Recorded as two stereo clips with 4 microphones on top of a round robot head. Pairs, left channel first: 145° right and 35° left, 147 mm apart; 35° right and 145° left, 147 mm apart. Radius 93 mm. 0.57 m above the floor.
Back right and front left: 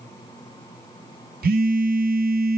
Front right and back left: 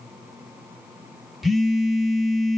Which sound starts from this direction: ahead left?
A phone buzzing, at 1.4 s.